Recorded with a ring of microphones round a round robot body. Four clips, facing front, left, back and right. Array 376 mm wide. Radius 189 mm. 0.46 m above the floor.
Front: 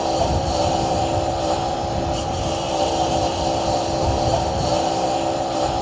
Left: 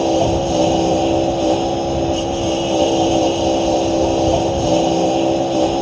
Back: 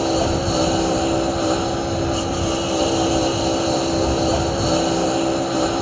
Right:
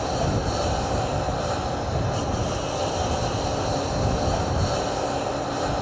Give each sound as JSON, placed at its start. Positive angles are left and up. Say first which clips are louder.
{"t": 0.0, "sound": "a lawn mower", "louder": "left 10 dB, back 1 dB", "azimuth_deg": 115}